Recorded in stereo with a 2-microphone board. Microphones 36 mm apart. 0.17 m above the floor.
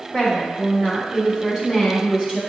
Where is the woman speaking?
15° right (ahead or behind), 1.2 m.